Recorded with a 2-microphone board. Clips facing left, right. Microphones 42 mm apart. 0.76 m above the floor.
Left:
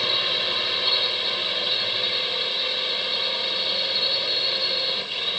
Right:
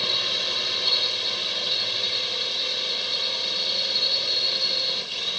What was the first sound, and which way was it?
A drone, 15° left (ahead or behind).